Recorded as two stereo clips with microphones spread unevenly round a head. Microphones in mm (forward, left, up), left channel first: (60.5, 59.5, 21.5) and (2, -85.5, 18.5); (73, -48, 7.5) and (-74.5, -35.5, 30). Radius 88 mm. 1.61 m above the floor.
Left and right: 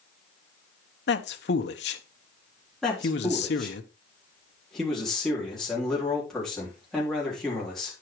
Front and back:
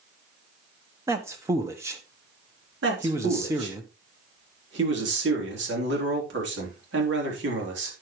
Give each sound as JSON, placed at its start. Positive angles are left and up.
{"t": 1.1, "sound": "a man speaking", "azimuth_deg": 100, "distance_m": 1.2}
{"t": 2.8, "sound": "a man speaking", "azimuth_deg": 155, "distance_m": 4.0}